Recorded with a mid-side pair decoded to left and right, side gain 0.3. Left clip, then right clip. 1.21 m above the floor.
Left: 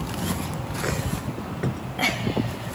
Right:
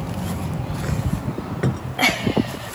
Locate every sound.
1.6 s a cupboard door: 55° right